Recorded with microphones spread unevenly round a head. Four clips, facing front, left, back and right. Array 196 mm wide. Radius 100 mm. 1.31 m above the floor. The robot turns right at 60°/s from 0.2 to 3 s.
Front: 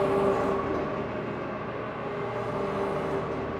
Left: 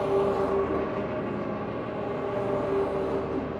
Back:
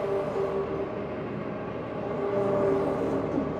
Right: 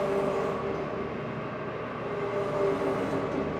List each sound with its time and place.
0.0 s an engine running: 20° left, 1.1 m; by 3.6 s 170° right, 1.1 m